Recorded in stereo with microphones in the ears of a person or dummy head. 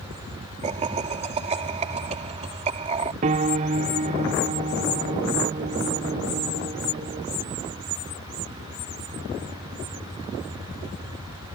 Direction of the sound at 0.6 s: 40° right (ahead or behind).